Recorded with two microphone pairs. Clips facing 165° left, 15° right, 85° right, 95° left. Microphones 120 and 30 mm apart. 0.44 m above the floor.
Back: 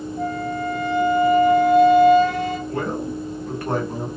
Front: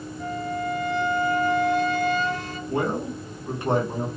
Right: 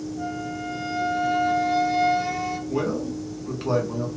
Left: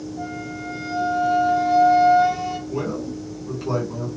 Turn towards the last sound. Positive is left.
turn(degrees=-65)